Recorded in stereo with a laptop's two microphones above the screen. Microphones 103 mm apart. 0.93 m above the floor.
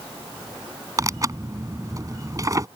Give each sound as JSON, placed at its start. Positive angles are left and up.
{"t": 1.0, "sound": "tearing paper", "side_deg": -35}